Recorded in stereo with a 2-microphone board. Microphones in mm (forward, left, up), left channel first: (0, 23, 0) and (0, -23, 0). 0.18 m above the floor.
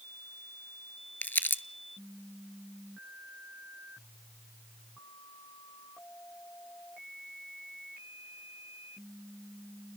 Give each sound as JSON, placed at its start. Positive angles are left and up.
{"t": 1.2, "sound": "crumpling", "side_deg": 45, "distance_m": 0.5}